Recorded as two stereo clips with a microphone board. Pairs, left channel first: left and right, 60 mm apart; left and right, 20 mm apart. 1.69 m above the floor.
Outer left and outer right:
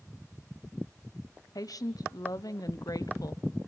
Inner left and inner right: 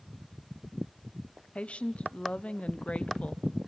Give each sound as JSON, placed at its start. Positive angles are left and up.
{"t": 1.6, "sound": "a woman speaking", "side_deg": 85, "distance_m": 1.1}